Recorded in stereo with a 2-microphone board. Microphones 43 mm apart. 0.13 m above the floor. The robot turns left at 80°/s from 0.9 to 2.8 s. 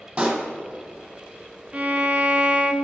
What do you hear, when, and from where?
0.2 s a pop: 20° right (ahead or behind), 2.0 m
1.7 s a violin: 55° right, 0.8 m; by 2.7 s 135° right, 0.8 m